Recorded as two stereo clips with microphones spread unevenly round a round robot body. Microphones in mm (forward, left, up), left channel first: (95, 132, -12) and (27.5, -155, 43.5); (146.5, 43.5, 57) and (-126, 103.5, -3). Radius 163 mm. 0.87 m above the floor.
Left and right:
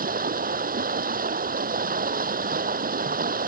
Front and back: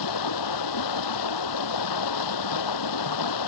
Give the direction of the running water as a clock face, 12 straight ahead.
1 o'clock.